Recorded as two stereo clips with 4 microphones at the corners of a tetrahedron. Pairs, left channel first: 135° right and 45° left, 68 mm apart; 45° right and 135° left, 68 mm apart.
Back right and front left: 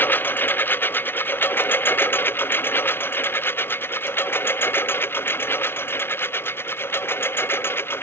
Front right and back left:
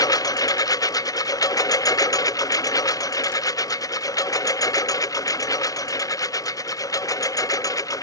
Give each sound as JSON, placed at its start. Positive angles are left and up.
{"t": 0.0, "sound": "a lawn mower", "azimuth_deg": -75}